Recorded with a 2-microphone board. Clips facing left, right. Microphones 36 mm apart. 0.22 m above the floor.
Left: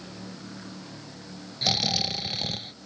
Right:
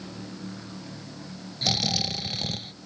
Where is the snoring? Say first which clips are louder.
Even; 5° left (ahead or behind).